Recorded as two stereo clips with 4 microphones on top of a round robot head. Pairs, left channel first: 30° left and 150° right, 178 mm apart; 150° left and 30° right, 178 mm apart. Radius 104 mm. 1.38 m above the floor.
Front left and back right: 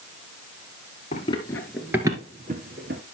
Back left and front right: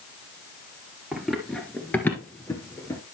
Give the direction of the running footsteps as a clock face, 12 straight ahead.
10 o'clock.